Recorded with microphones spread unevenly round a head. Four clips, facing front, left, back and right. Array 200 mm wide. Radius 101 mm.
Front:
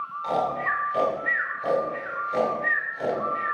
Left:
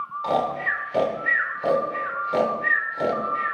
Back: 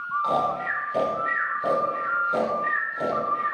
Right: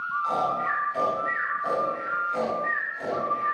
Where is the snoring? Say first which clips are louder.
Left 3 dB, front 1 dB; 110° left, 3 m.